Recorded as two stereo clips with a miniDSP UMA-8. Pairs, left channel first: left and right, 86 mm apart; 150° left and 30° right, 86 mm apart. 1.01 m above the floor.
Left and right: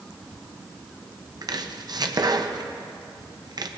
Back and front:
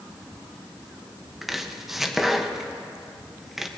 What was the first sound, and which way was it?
Chopping, 115° right.